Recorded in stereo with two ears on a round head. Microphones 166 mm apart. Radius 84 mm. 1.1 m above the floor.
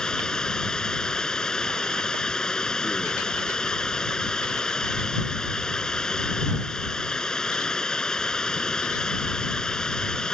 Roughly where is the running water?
Centre.